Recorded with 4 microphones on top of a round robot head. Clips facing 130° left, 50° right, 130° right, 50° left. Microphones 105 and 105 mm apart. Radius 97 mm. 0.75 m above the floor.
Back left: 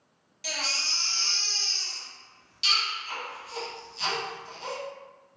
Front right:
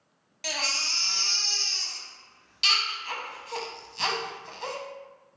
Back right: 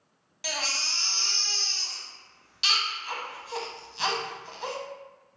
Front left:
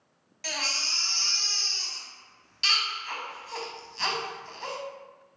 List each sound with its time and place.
0.4 s a baby crying: 55° right, 0.7 m